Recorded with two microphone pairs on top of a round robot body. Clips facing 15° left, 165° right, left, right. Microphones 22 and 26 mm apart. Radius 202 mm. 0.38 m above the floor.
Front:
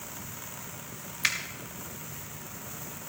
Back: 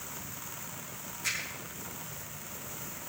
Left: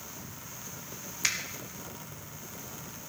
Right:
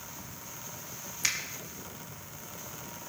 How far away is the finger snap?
About 2 m.